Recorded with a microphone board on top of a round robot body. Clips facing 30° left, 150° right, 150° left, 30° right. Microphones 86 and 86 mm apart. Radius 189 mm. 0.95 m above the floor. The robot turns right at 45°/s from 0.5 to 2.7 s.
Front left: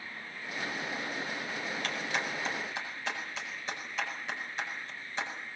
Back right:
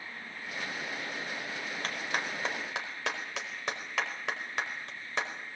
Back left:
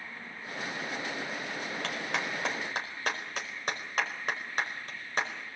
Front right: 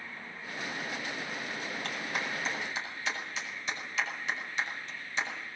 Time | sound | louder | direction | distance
1.8 | a clap | back right 1 dB, back left 2 dB | 155° left | 5 m